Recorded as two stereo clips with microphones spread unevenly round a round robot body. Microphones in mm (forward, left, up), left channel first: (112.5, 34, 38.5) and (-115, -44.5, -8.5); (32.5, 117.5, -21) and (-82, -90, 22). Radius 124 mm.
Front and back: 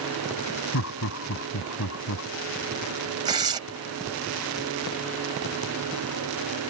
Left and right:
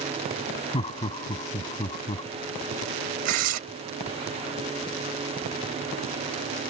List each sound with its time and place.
0.7 s laughter: 10° right
3.2 s tearing paper: 95° right